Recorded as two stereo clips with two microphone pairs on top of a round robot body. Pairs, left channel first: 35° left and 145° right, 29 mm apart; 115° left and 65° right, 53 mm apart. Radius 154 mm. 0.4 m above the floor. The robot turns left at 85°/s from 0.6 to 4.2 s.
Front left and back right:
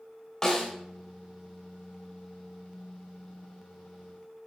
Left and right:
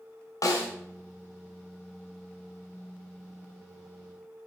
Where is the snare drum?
105° left, 1.6 m; by 0.7 s 100° left, 1.6 m.